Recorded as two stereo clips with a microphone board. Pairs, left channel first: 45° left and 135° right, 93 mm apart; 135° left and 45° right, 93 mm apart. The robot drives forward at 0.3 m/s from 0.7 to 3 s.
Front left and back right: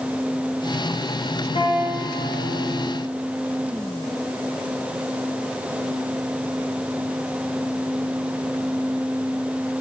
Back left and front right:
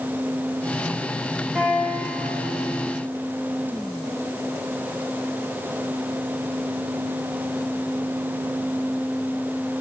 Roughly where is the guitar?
Ahead left.